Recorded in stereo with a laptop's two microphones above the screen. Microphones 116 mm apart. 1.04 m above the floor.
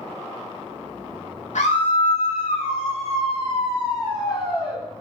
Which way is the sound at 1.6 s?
85° left.